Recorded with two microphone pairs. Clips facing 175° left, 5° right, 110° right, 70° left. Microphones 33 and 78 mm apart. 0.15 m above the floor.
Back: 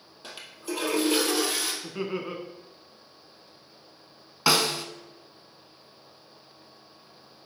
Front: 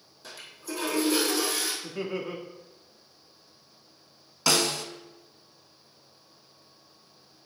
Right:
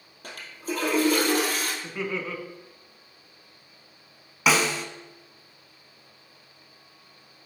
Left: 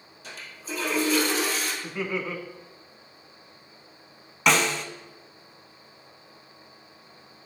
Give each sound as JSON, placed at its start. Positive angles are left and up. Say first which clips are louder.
{"t": 0.2, "sound": "a toilet flushing", "louder": "back 3 dB, right 5 dB", "azimuth_deg": -140, "distance_m": 2.0}
{"t": 1.8, "sound": "laughter", "louder": "back 1 dB, left 1 dB", "azimuth_deg": 155, "distance_m": 1.1}
{"t": 4.5, "sound": "a snare drum", "louder": "back 2 dB, even", "azimuth_deg": 175, "distance_m": 0.7}